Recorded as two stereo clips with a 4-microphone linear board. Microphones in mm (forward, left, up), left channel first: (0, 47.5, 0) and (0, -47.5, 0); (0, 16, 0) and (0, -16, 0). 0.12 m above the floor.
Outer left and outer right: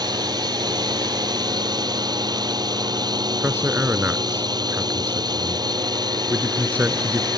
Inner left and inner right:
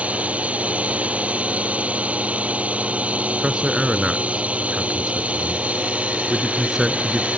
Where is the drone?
45° right (ahead or behind).